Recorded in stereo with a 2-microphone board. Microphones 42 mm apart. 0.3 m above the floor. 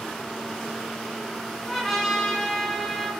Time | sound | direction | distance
1.7 | a trumpet | 5° right (ahead or behind) | 4 m